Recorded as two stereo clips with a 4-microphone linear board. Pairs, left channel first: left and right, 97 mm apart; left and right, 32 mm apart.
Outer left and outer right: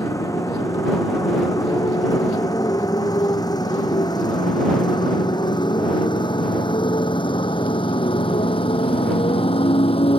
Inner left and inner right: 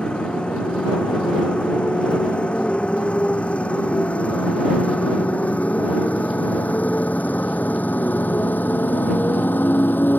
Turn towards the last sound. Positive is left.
turn(degrees=75)  # may be behind; listen again after turning